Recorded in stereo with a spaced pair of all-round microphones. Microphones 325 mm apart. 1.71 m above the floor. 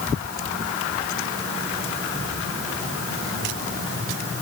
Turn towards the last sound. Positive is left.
No sound to turn to.